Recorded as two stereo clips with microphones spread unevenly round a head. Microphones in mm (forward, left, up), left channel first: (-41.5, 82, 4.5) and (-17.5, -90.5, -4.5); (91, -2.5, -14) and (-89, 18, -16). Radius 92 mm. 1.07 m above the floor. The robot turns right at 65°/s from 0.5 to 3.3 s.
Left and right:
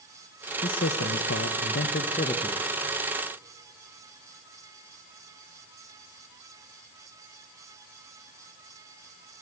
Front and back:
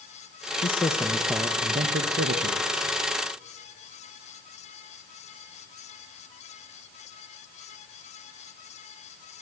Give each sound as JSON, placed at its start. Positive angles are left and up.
{"t": 0.6, "sound": "a man speaking", "azimuth_deg": 50, "distance_m": 1.1}